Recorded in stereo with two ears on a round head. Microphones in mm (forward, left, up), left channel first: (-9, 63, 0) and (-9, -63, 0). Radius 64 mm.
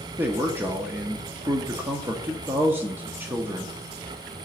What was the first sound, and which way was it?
A man speaking, 15° right (ahead or behind).